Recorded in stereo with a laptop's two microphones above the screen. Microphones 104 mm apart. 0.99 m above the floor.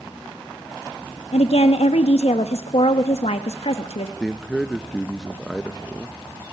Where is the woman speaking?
80° left, 1.0 m.